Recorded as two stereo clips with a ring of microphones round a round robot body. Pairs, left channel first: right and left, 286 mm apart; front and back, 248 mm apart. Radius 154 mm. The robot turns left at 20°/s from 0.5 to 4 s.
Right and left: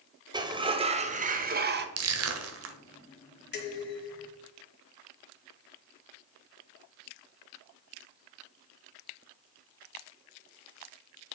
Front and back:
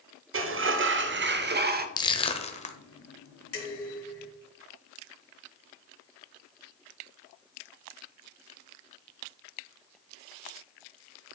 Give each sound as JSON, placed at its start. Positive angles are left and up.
{"t": 0.3, "sound": "a sliding door", "azimuth_deg": 160, "distance_m": 0.9}
{"t": 2.0, "sound": "crushing", "azimuth_deg": 70, "distance_m": 1.3}
{"t": 3.5, "sound": "dishes clattering", "azimuth_deg": -35, "distance_m": 2.0}